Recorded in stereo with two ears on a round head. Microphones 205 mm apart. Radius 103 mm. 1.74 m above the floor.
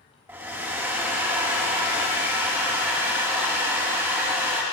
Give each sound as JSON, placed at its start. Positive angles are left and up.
{"t": 0.3, "sound": "a hair dryer", "side_deg": -10, "distance_m": 1.1}